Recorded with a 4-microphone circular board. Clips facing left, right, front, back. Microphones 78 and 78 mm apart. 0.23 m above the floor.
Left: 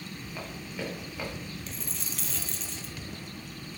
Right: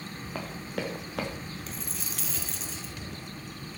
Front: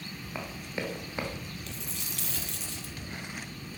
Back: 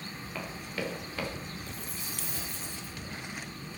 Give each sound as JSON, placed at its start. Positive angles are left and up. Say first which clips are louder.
{"t": 0.3, "sound": "running footsteps", "louder": "right 4 dB, front 1 dB", "azimuth_deg": -70, "distance_m": 4.5}
{"t": 1.7, "sound": "a dropped coin", "louder": "right 1 dB, even", "azimuth_deg": -5, "distance_m": 1.8}